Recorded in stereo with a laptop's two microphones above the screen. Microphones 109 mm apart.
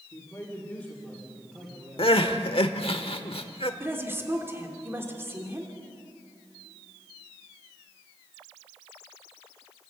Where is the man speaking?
30° left (ahead or behind), 2.5 m; by 3.0 s 35° right (ahead or behind), 4.5 m.